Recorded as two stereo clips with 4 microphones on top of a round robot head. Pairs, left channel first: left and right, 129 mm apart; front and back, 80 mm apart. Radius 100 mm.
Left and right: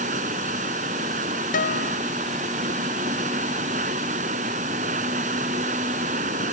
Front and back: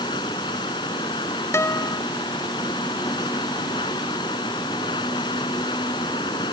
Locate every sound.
0.0 s running water: 50° right
1.5 s a guitar: 55° left